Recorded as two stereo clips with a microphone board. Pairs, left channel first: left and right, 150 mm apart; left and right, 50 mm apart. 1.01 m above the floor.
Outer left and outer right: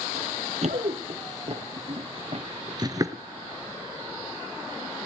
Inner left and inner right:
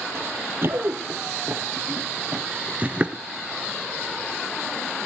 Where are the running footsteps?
50° right (ahead or behind), 2 m; by 3.2 s 20° right (ahead or behind), 1.1 m.